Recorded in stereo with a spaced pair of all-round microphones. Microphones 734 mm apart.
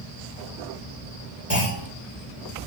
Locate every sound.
1.5 s a clunk: 20° left (ahead or behind), 1.8 m